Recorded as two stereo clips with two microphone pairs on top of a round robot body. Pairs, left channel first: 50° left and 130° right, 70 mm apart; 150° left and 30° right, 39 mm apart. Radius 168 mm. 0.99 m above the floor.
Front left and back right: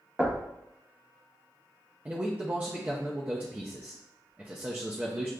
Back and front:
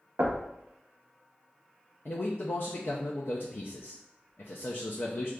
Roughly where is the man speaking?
Behind.